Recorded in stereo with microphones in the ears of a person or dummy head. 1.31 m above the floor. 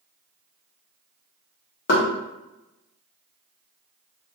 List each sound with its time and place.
1.9 s knocking: 55° left (ahead or behind), 0.8 m